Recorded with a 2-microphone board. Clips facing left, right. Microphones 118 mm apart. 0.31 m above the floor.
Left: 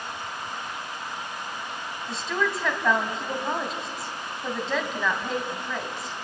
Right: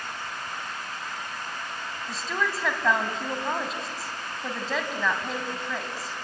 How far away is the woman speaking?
About 2.5 m.